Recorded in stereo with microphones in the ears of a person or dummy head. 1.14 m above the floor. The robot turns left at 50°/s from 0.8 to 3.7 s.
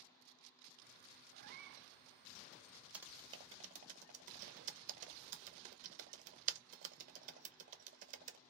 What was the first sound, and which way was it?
A cat meowing, 45° right (ahead or behind).